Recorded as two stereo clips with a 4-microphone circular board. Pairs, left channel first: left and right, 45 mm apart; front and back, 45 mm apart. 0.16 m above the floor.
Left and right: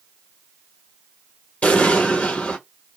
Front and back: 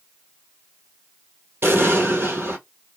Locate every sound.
1.6 s an explosion: 150° left, 1.3 m